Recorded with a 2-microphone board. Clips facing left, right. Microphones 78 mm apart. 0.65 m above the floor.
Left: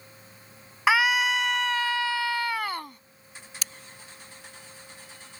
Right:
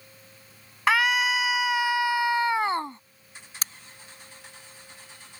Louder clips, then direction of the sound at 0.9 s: Even; 5° left (ahead or behind).